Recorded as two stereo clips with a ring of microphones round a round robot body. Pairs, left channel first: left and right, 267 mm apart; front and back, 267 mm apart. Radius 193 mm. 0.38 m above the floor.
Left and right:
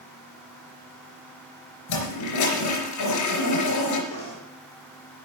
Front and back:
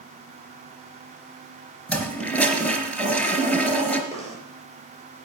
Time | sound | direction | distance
1.9 | a toilet flushing | 85° left | 3.5 m
4.1 | knocking | 70° left | 7 m